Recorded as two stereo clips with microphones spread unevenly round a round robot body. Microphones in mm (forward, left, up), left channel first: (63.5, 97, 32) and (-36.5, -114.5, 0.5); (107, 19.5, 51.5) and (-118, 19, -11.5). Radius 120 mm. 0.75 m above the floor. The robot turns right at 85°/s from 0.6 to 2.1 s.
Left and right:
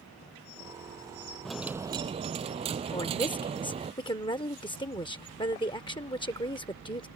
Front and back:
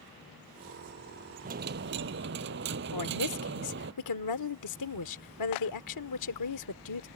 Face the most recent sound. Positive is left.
turn(degrees=-10)